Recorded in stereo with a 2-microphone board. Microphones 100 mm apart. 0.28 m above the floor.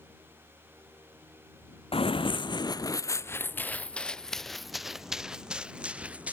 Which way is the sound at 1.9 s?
70° left (ahead or behind).